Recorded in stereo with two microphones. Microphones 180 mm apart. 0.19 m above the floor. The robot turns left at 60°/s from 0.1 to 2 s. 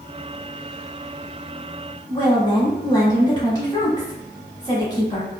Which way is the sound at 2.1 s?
25° left (ahead or behind).